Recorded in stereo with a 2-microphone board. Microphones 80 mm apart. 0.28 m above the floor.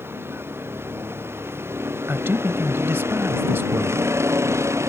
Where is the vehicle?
30° right (ahead or behind); by 4.9 s 35° right (ahead or behind).